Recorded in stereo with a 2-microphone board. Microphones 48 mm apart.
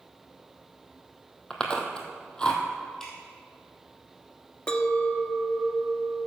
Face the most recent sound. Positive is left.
turn(degrees=20)  # may be behind; listen again after turning